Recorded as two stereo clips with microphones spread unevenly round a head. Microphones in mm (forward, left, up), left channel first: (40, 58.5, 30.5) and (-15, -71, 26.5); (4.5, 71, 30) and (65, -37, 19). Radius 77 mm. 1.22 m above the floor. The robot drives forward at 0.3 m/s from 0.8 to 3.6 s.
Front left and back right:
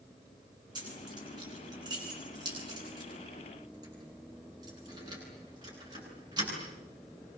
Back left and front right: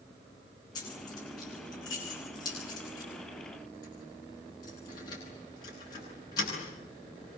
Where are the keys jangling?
175° right, 9 m.